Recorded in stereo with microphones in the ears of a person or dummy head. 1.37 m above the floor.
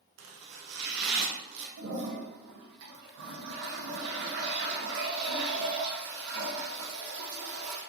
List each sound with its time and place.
0.2 s chopping: 65° right (ahead or behind), 0.9 m
1.8 s a toilet flushing: 70° right (ahead or behind), 1.2 m